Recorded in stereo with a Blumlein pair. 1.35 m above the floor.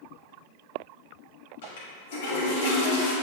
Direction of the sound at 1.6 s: 55° left.